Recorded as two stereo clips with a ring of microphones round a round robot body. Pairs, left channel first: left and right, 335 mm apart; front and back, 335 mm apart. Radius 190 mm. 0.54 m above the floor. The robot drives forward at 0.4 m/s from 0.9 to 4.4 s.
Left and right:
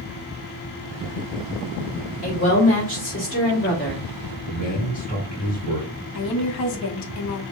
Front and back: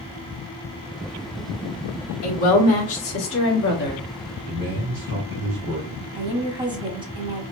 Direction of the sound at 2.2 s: 25° left.